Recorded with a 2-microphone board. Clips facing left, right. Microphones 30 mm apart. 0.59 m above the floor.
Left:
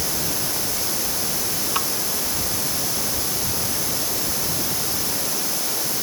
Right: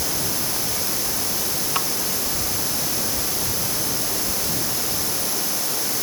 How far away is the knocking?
No knocking in this recording.